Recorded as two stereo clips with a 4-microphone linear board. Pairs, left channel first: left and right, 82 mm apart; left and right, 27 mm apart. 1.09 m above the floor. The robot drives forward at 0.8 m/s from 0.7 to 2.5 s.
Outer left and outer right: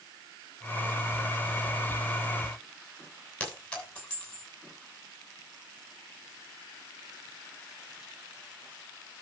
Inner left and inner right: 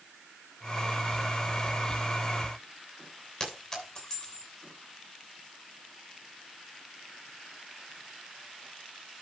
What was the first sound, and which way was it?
A clink, 15° left (ahead or behind).